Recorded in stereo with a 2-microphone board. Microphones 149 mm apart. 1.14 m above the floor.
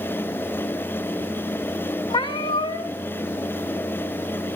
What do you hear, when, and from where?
2.1 s a cat meowing: 30° left (ahead or behind), 0.5 m